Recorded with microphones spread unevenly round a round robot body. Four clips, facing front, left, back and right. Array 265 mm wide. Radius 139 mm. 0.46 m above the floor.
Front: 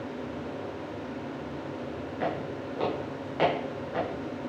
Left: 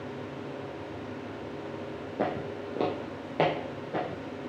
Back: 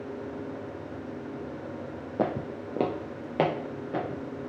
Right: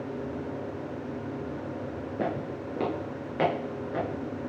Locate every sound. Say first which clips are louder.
2.2 s footsteps: left 1 dB, back 3 dB; 175° right, 1.0 m; by 4.5 s 160° left, 3.5 m